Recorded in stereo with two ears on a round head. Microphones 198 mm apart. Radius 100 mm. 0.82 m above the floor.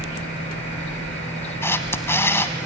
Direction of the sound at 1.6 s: 10° left (ahead or behind).